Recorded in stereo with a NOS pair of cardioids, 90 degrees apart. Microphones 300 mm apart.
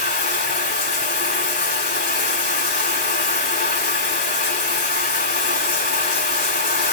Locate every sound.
0.0 s running water: 30° left, 3.5 m